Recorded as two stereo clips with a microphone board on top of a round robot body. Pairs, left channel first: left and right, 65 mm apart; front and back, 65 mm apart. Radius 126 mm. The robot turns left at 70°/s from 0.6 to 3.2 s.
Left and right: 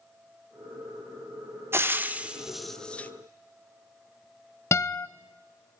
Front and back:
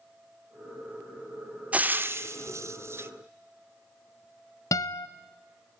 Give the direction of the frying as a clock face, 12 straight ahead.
4 o'clock.